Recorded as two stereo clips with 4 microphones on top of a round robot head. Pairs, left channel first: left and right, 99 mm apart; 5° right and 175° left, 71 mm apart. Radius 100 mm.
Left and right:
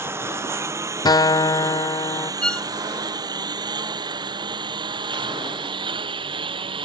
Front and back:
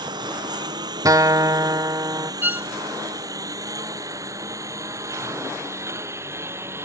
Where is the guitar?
135° left.